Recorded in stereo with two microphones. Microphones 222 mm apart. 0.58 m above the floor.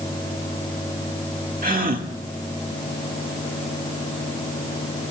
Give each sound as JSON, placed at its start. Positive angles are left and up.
{"t": 1.6, "sound": "a gasp", "side_deg": -40, "distance_m": 1.6}